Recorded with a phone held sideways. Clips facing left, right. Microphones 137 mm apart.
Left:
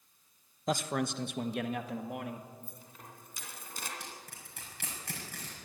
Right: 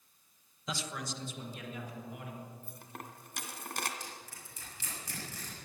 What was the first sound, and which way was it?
A man speaking, 45° left (ahead or behind).